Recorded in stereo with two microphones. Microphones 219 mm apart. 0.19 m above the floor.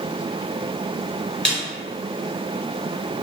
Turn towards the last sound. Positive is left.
turn(degrees=5)  # may be behind; listen again after turning